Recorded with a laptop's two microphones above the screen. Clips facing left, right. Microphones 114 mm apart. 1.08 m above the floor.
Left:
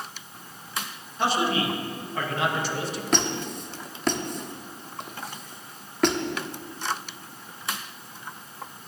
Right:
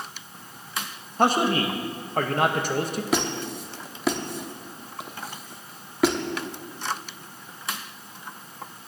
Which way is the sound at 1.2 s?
45° right (ahead or behind).